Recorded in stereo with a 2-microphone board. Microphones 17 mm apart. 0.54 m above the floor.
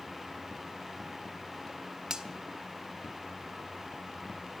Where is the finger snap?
40° right (ahead or behind), 1.4 m.